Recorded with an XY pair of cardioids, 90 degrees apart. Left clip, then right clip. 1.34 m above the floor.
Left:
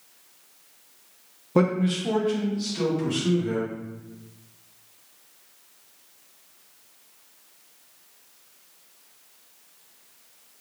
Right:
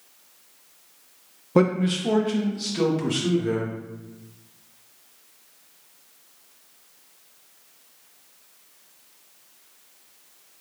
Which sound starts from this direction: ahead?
A man speaking, at 1.6 s.